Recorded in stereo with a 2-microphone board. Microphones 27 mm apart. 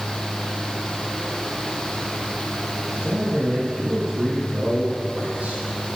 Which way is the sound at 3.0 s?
55° right (ahead or behind).